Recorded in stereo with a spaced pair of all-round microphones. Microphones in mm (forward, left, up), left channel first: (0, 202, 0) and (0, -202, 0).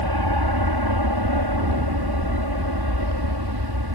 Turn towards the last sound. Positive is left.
turn(degrees=-70)  # may be behind; listen again after turning